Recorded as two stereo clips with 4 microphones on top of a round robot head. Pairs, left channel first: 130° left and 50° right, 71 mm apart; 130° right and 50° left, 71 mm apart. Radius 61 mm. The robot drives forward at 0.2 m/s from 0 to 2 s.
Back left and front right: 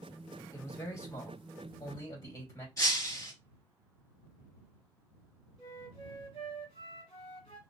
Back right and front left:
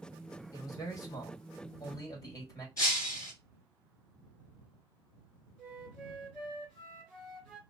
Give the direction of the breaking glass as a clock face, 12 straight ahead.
6 o'clock.